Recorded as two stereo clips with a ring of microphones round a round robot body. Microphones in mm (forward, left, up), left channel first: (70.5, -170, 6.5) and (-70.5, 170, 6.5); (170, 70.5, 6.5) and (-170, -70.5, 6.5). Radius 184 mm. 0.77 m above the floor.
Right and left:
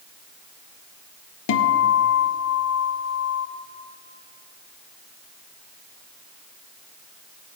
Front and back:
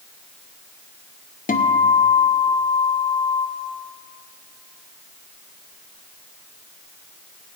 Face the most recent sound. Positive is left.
turn(degrees=-40)